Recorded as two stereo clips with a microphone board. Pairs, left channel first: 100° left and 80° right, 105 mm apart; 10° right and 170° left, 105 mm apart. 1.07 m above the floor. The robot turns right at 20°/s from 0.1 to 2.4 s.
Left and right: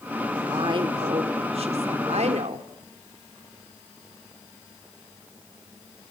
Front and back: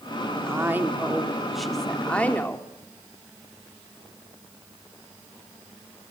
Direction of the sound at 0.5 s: 125° right.